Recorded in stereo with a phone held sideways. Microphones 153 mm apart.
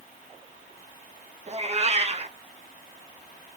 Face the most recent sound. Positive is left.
turn(degrees=-45)  # may be behind; listen again after turning